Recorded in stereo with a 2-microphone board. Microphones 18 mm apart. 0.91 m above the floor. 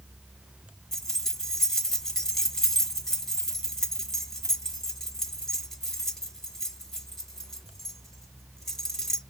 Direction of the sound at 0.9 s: 25° left (ahead or behind).